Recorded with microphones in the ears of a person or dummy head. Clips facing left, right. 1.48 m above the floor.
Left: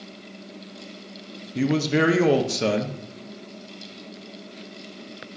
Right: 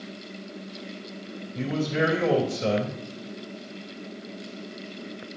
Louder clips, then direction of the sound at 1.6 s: Left 5 dB; 75° left (ahead or behind).